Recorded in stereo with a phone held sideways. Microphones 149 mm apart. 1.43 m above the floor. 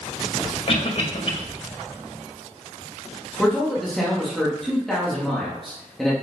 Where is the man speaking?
Centre (ahead or behind), 2.5 m.